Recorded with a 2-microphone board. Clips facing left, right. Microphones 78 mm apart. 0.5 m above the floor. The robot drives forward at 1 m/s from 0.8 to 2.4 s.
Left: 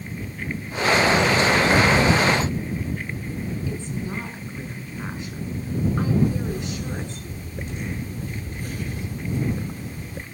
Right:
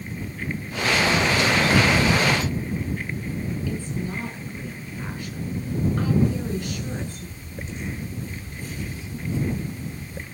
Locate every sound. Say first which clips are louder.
3.7 s a woman speaking: right 1 dB; 20° left (ahead or behind), 6.5 m
6.2 s a camera shutter: left 1 dB; 55° left (ahead or behind), 0.7 m